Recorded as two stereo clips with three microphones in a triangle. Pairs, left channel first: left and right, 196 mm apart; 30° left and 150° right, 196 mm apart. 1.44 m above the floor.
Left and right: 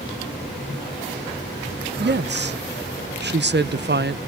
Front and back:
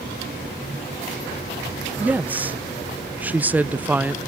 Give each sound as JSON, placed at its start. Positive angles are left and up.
{"t": 2.0, "sound": "a woman speaking", "azimuth_deg": -65, "distance_m": 0.8}